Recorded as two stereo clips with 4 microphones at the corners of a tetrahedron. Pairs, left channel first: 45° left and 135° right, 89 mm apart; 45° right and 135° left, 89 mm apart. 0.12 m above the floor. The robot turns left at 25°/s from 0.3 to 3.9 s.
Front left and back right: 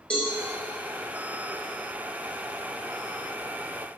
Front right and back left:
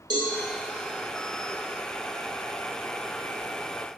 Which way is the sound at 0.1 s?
120° left.